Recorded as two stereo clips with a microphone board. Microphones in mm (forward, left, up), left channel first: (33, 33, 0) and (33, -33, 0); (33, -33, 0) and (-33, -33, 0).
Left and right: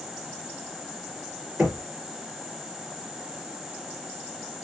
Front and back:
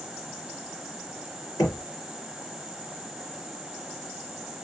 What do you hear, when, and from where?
1.6 s knocking: 10° right, 3 m